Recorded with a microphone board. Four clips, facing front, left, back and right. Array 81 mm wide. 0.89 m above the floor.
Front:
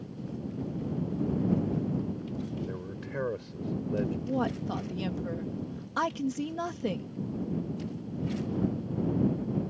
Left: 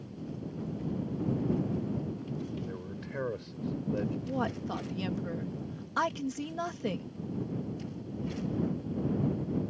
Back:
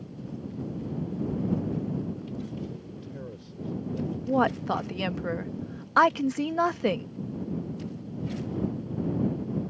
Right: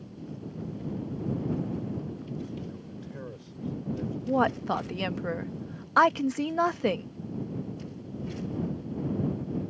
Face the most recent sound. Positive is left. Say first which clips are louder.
# right 7 dB, back 6 dB
turn(degrees=-135)